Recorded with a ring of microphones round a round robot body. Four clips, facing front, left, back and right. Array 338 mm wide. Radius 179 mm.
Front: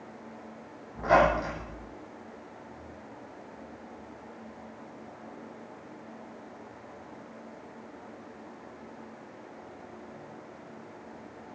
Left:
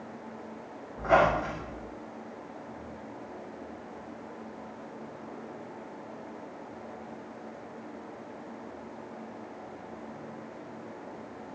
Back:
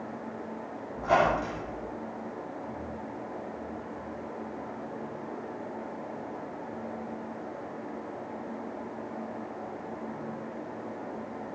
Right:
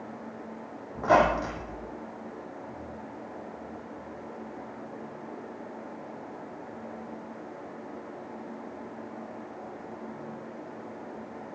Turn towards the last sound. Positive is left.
turn(degrees=-80)